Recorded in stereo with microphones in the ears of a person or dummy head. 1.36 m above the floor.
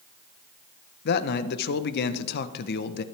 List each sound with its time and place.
1.1 s a man speaking: 55° left (ahead or behind), 0.9 m